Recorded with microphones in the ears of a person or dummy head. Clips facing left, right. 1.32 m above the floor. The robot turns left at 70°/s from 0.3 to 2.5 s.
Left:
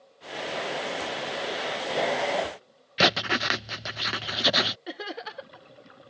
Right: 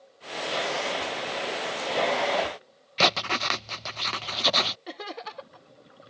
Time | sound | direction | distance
3.0 | writing | 10° left (ahead or behind) | ?
4.9 | laughter | 10° left (ahead or behind) | ?